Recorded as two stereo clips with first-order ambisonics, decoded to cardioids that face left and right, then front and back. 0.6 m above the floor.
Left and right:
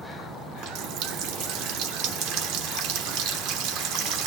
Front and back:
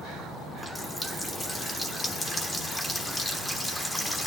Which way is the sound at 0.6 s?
80° right.